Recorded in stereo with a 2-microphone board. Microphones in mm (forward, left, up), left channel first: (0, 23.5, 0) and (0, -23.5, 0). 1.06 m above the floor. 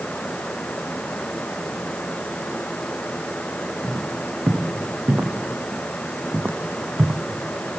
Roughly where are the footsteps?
Right.